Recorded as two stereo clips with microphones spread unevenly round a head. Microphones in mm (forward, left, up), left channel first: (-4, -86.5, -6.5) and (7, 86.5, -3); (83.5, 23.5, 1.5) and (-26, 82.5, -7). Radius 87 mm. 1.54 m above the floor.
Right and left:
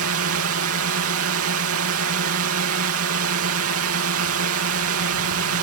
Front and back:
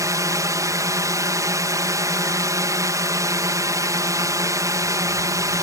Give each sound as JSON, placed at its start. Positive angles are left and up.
{"t": 0.0, "sound": "a drone", "azimuth_deg": 90}